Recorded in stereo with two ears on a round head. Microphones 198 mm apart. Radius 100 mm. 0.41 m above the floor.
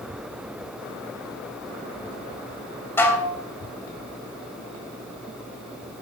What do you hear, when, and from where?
3.0 s dishes clattering: 10° left (ahead or behind), 1.4 m